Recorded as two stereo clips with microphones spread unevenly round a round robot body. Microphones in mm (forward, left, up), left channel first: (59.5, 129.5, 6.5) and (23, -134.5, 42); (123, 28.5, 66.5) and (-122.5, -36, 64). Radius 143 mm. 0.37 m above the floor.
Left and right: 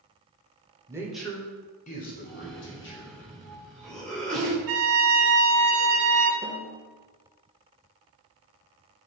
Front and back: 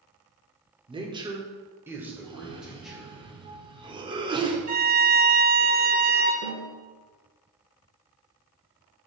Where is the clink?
No clink in this recording.